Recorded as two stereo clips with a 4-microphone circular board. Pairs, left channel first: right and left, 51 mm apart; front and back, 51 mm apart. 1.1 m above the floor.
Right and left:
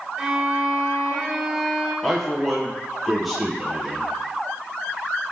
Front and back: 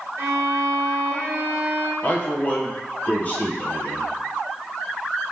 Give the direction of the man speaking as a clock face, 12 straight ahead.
12 o'clock.